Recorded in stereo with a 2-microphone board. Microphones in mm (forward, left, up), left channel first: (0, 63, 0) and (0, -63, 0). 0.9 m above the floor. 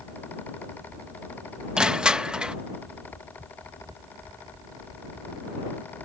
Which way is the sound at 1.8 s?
5° right (ahead or behind).